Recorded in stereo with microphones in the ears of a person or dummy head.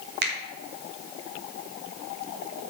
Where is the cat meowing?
I don't hear a cat meowing.